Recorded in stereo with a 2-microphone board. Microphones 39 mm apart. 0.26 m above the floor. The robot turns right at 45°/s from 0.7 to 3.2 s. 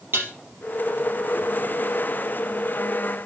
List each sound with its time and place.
0.1 s dishes clattering: 80° right, 4.5 m